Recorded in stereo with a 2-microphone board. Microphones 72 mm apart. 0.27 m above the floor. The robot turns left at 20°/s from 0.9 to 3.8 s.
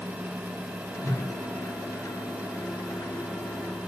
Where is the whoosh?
60° right (ahead or behind), 3 m.